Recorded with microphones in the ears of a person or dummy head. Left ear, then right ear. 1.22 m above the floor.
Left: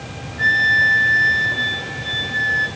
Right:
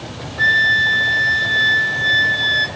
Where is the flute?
45° right (ahead or behind), 2.5 m.